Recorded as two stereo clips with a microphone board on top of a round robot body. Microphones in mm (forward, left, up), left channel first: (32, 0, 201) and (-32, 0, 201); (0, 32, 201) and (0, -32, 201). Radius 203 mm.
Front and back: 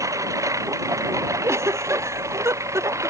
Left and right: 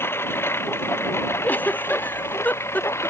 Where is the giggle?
150° left.